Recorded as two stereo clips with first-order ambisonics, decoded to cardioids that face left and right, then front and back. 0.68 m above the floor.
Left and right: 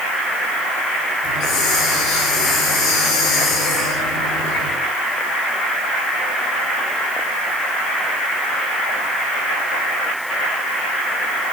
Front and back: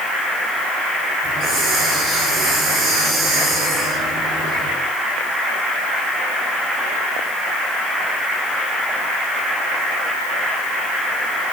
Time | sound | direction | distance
1.2 | a hiss | 135° left | 4.5 m